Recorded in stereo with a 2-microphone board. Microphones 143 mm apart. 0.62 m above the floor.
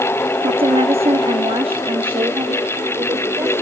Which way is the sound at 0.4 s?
35° right (ahead or behind).